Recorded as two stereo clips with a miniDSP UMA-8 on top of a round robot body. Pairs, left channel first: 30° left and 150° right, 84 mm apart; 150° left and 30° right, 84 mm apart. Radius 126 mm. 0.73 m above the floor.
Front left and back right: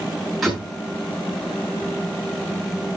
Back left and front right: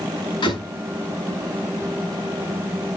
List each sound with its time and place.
0.4 s a door slam: 120° left, 9 m